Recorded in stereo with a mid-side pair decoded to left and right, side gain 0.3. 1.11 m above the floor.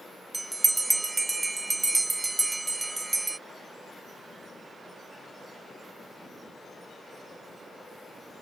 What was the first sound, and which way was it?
A bell, 30° right.